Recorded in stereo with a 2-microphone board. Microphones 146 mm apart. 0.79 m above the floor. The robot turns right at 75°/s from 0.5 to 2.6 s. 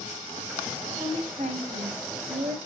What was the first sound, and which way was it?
A woman speaking, 155° right.